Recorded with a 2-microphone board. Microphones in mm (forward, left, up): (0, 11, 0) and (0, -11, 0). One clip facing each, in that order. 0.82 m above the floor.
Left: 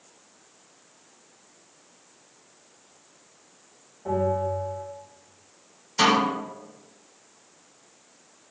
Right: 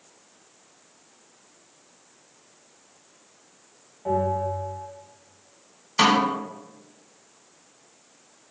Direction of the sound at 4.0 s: 25° right (ahead or behind).